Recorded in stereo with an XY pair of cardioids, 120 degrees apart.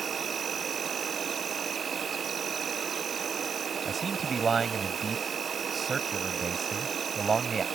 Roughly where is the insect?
Ahead right.